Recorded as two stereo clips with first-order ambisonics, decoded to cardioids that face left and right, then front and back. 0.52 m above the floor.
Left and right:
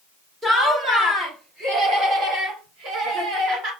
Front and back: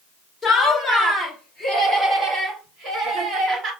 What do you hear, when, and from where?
0.4 s laughter: 50° right, 1.3 m; by 3.7 s 125° right, 2.5 m